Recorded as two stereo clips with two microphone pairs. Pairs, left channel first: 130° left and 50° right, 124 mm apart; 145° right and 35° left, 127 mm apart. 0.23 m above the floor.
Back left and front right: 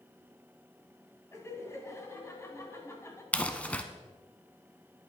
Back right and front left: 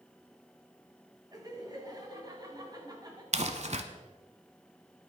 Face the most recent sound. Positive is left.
turn(degrees=50)